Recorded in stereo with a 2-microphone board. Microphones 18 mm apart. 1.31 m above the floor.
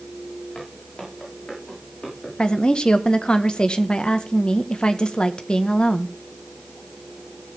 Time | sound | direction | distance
0.6 | footsteps | 50° left (ahead or behind) | 8 m
2.4 | a woman speaking | 60° left (ahead or behind) | 1.4 m